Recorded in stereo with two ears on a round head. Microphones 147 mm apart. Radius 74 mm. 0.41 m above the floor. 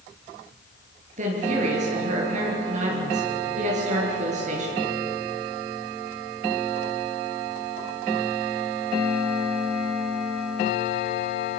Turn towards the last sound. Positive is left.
turn(degrees=-45)  # may be behind; listen again after turning